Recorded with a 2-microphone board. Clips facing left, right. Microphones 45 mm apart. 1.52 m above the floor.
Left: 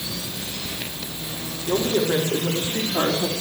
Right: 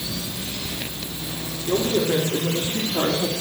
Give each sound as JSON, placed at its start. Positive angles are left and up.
{"t": 1.7, "sound": "a woman speaking", "side_deg": 15, "distance_m": 3.5}